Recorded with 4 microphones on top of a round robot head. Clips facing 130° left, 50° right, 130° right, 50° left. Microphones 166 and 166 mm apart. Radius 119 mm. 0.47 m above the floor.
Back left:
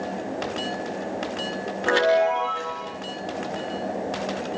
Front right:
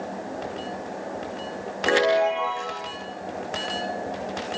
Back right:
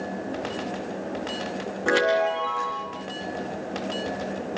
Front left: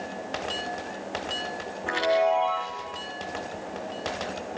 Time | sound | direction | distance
1.9 | a chime | 125° right | 7.5 m